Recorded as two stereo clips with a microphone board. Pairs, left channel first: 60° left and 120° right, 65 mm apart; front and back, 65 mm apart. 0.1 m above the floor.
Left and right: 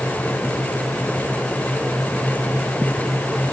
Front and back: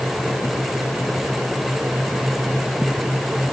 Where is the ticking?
No ticking in this recording.